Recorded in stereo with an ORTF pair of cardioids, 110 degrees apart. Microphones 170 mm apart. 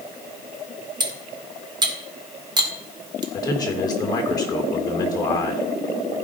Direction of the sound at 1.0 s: 25° right.